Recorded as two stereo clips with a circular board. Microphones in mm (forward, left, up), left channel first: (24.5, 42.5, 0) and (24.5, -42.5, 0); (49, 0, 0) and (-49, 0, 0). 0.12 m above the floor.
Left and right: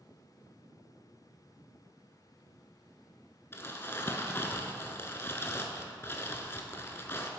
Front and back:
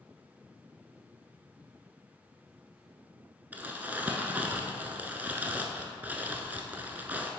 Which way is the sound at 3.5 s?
125° left.